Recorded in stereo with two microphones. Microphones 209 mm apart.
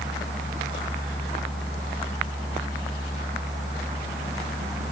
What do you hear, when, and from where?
Only background noise.